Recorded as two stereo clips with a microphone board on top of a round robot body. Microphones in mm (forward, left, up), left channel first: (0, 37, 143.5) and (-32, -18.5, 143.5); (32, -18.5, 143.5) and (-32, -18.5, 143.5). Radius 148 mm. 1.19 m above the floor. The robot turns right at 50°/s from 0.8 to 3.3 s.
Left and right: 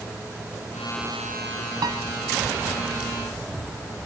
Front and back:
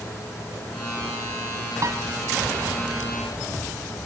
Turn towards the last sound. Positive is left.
turn(degrees=-65)